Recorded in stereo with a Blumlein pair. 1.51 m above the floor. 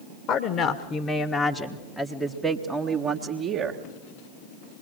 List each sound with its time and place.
0.3 s a woman speaking: 30° left, 1.7 m; by 3.8 s 35° right, 1.7 m